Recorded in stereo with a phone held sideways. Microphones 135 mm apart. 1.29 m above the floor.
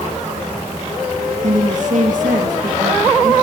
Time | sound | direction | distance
1.4 | a woman speaking | 75° right (ahead or behind) | 1.2 m